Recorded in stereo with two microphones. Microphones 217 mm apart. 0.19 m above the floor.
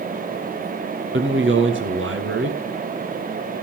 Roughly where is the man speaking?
Right.